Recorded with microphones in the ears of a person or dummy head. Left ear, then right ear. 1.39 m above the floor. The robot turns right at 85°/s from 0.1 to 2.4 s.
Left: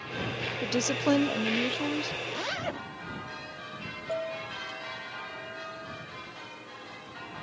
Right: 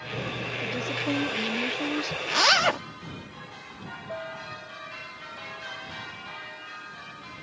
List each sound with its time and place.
0.6 s a woman speaking: 70° left; by 2.2 s 155° right
2.3 s a zipper: 35° right (ahead or behind); by 2.8 s 45° right (ahead or behind)
4.1 s a piano: 85° left